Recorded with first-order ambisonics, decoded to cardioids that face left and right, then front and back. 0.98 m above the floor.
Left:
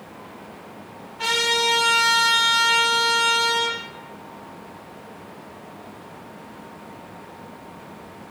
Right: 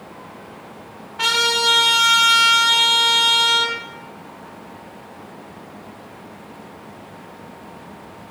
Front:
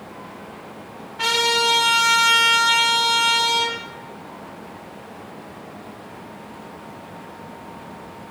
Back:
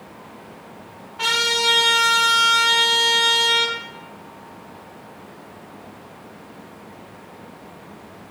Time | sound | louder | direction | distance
1.2 | a trumpet | right 3 dB, front 1 dB | 90° right | 1.4 m